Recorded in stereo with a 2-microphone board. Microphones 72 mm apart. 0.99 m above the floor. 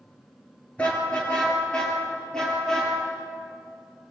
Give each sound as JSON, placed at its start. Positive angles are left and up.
{"t": 0.8, "sound": "a car horn", "side_deg": 15, "distance_m": 7.5}